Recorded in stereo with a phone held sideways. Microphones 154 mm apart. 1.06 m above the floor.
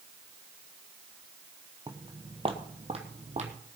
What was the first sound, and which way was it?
Footsteps, 25° right (ahead or behind).